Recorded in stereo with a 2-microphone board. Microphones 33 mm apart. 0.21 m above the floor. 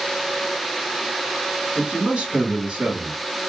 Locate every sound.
1.8 s a man speaking: 30° right (ahead or behind), 1.9 m